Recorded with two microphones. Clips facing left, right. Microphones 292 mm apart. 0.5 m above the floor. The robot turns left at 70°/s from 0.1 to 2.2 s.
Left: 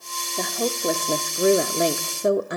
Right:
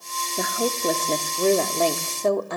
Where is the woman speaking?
10° right (ahead or behind), 1.0 m; by 2.6 s 20° left (ahead or behind), 1.0 m.